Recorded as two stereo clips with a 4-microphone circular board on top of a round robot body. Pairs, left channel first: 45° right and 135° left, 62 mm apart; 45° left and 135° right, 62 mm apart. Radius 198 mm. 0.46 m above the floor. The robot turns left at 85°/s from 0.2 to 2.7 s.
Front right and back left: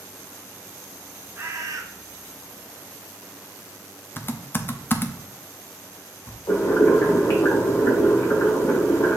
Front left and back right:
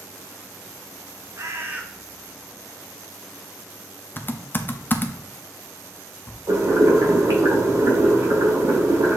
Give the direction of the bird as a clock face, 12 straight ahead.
6 o'clock.